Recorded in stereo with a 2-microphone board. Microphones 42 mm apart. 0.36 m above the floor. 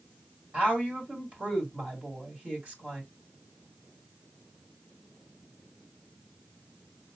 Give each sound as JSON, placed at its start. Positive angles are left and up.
{"t": 0.5, "sound": "a woman speaking", "side_deg": -35, "distance_m": 2.0}